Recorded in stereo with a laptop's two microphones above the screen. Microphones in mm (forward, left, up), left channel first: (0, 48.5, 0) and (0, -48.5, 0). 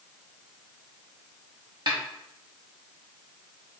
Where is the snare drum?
50° right (ahead or behind), 0.8 m.